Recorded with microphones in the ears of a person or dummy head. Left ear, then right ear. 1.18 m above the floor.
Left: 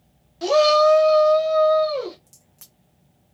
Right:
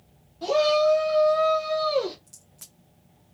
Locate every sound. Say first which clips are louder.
0.4 s a shout: left 5 dB; 60° left (ahead or behind), 0.7 m; by 2.2 s 5° right (ahead or behind), 0.8 m
2.3 s a crack: right 3 dB; 5° left (ahead or behind), 0.5 m